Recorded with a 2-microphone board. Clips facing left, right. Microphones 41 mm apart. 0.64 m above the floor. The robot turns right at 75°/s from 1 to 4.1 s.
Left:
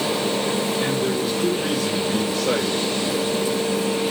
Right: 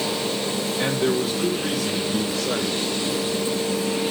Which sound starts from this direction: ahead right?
A man speaking, at 0.8 s.